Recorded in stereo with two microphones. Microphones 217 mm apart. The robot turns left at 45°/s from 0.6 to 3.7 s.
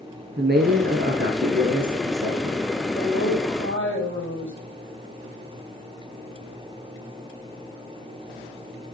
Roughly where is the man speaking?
Right.